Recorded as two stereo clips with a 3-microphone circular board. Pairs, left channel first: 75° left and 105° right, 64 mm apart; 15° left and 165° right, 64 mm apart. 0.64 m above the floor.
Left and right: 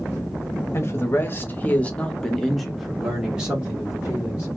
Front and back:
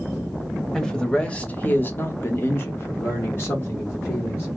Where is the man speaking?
95° left, 0.9 m; by 4.5 s 40° right, 1.6 m.